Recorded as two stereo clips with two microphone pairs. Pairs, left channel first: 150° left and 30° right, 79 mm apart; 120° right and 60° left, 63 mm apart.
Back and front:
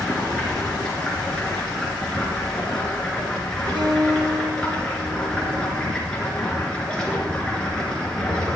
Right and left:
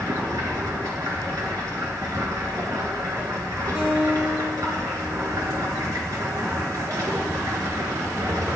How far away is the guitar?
About 1.9 m.